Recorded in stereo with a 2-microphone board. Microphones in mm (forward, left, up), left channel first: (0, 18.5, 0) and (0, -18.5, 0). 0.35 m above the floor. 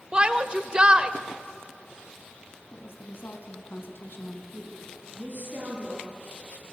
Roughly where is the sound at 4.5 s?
Right.